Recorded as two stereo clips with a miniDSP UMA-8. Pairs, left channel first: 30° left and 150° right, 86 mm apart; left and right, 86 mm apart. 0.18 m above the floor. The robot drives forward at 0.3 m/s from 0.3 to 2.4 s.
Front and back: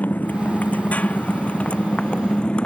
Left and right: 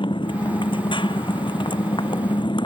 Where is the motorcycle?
100° left; by 2.7 s 105° left.